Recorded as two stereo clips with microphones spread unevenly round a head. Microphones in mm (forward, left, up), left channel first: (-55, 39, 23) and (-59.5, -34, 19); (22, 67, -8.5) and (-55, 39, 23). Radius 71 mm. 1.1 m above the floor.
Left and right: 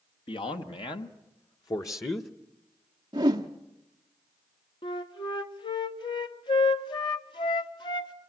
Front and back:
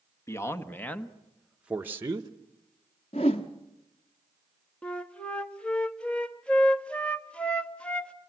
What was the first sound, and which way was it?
A man speaking, 75° left.